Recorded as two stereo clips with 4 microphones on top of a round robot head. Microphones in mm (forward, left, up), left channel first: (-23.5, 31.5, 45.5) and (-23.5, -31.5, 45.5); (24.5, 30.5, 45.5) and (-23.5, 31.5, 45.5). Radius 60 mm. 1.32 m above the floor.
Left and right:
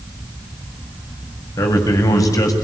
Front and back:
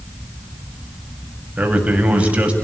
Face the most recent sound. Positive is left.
turn(degrees=115)